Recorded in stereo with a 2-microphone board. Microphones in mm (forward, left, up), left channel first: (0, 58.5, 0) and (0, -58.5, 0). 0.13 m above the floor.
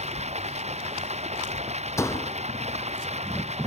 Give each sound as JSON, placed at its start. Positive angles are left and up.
{"t": 0.0, "sound": "running water", "side_deg": -70}
{"t": 2.0, "sound": "a door slam", "side_deg": 25}